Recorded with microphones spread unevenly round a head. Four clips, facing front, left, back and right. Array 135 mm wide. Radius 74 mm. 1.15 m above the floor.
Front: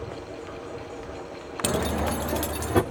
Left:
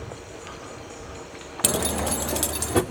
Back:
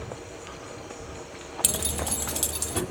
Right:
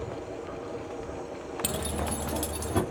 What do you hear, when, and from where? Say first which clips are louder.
1.6 s keys jangling: left 8 dB, front 9 dB; 50° left, 0.6 m